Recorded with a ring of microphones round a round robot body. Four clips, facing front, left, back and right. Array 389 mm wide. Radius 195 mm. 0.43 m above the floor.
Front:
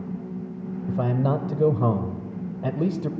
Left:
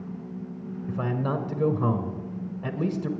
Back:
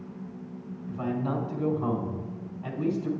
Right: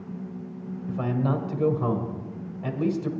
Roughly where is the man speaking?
Ahead.